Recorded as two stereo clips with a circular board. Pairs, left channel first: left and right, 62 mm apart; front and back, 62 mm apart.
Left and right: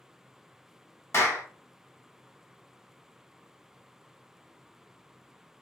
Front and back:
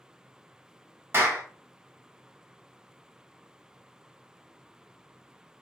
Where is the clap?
135° left, 0.8 m.